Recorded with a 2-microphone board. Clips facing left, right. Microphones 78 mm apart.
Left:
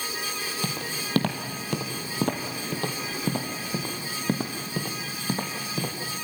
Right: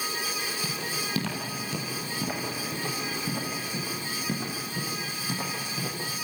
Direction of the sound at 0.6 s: 55° left (ahead or behind).